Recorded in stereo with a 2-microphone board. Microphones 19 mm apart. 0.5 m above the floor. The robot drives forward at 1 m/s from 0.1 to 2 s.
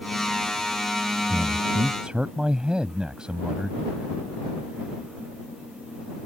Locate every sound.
1.3 s a man speaking: 60° right (ahead or behind); by 3.8 s 50° right (ahead or behind)